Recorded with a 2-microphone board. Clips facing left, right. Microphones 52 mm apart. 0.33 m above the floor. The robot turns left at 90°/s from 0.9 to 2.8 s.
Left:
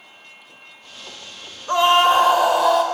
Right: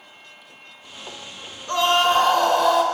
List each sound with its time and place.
1.7 s a scream: 20° left (ahead or behind), 0.8 m; by 2.8 s centre (ahead or behind), 0.8 m